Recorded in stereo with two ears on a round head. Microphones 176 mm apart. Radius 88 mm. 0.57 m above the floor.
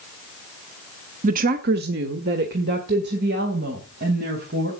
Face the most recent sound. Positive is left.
turn(degrees=-60)  # may be behind; listen again after turning